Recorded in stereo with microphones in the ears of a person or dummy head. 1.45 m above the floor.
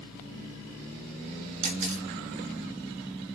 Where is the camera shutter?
45° right (ahead or behind), 1.1 m.